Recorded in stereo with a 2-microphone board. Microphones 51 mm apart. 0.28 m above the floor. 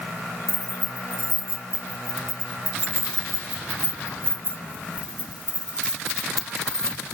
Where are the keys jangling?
70° right (ahead or behind), 3.5 m; by 7.0 s 15° left (ahead or behind), 1.3 m.